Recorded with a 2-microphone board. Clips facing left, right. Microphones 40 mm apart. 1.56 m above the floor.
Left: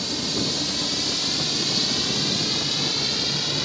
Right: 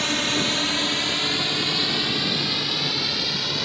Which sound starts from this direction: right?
A drone, at 0.0 s.